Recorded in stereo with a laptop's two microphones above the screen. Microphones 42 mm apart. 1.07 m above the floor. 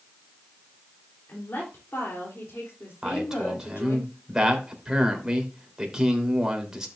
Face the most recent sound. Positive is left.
turn(degrees=-15)  # may be behind; listen again after turning